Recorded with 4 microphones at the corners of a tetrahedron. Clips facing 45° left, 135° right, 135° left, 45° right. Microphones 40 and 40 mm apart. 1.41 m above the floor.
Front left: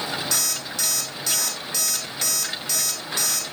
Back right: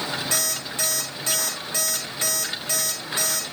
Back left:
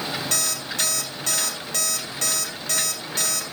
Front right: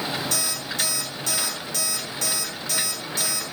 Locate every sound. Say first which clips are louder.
0.3 s an alarm clock: even, back left 1 dB; 170° left, 3.5 m